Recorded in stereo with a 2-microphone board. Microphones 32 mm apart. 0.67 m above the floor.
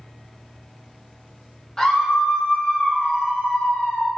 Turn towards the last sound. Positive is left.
turn(degrees=70)  # may be behind; listen again after turning